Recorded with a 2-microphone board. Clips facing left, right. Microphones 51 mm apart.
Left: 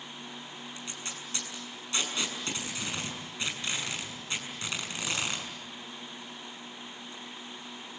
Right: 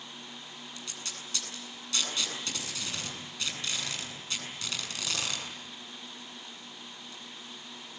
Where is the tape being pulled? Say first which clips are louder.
Left 1 dB; 25° left (ahead or behind), 7.5 m.